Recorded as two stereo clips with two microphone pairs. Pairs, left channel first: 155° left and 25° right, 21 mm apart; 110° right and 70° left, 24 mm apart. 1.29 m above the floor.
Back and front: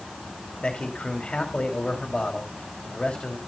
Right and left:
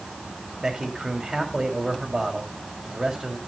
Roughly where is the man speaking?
Behind left.